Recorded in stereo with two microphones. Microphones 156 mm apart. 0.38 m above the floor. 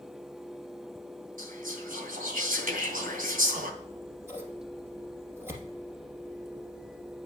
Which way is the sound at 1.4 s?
65° right (ahead or behind).